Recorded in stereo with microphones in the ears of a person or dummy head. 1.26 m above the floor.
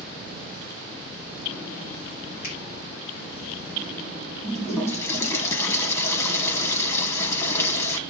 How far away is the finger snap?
About 3.5 m.